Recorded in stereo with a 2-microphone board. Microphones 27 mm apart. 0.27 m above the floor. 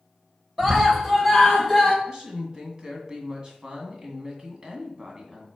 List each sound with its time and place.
0.6 s a scream: 15° right (ahead or behind), 1.2 m; by 1.9 s 5° right (ahead or behind), 2 m
2.0 s a woman speaking: 30° right (ahead or behind), 2 m